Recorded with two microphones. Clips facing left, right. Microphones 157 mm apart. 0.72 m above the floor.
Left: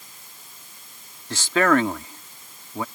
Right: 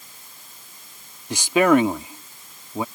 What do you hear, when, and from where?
1.3 s a man speaking: 15° right (ahead or behind)